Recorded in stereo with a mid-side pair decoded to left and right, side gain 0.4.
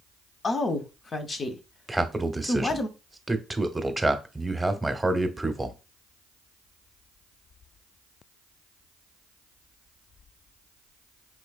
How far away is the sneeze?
I don't hear a sneeze.